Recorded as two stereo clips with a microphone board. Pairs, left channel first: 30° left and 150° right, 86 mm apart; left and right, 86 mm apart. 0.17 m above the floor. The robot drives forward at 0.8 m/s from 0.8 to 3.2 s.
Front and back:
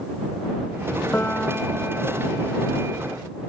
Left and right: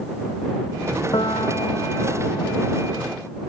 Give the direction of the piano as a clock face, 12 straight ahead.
9 o'clock.